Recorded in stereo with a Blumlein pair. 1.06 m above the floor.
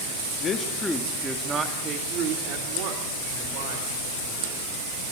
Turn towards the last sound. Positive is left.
turn(degrees=-60)